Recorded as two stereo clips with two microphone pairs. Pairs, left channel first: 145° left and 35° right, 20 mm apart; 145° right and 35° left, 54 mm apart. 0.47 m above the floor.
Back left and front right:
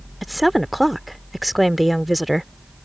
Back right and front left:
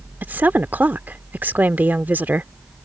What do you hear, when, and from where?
0.2 s a woman speaking: 50° left